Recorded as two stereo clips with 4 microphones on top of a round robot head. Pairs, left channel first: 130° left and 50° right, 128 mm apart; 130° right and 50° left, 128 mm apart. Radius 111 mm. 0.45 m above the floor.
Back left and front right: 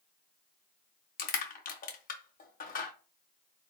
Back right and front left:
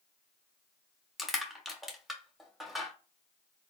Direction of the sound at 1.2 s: 140° left.